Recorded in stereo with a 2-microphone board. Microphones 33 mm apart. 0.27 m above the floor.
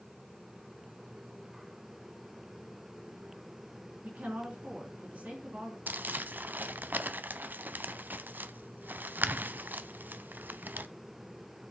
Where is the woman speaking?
50° right (ahead or behind), 3.5 m.